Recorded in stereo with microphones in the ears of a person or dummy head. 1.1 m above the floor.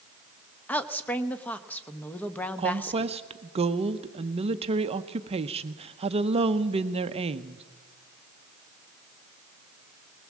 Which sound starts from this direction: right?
A woman speaking, at 2.6 s.